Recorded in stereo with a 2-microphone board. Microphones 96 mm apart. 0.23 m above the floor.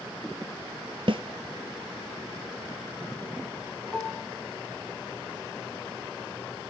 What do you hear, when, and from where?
1.1 s a snare drum: 60° right (ahead or behind), 0.8 m
3.9 s dishes clattering: 10° left (ahead or behind), 1.1 m